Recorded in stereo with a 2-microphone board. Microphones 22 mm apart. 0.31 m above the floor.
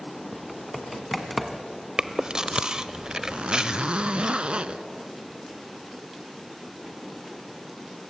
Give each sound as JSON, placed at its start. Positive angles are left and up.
{"t": 0.3, "sound": "typing on a keyboard", "side_deg": -5, "distance_m": 1.5}
{"t": 2.0, "sound": "chewing", "side_deg": -30, "distance_m": 0.8}
{"t": 3.3, "sound": "a zipper", "side_deg": -65, "distance_m": 0.7}